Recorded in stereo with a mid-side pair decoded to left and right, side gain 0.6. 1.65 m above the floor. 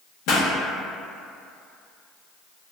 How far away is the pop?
About 0.8 m.